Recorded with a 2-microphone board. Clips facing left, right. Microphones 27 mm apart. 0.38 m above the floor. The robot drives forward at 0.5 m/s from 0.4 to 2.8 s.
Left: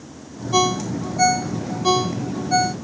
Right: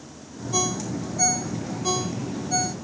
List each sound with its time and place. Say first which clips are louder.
0.5 s a ringtone: left 8 dB; 35° left (ahead or behind); by 2.8 s 30° left (ahead or behind)